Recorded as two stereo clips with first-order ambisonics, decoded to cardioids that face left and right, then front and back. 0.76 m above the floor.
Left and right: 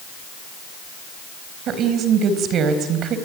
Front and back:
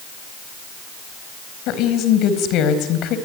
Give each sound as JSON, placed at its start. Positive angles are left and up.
{"t": 1.7, "sound": "a woman speaking", "azimuth_deg": -40, "distance_m": 4.0}